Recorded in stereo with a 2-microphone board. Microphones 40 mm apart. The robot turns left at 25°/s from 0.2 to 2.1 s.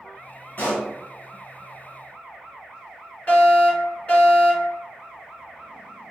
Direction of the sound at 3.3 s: 40° left (ahead or behind).